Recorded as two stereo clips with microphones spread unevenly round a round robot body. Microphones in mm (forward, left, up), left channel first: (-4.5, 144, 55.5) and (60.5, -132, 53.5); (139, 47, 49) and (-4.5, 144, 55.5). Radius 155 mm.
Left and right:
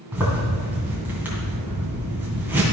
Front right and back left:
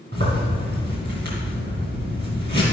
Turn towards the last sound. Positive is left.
turn(degrees=-160)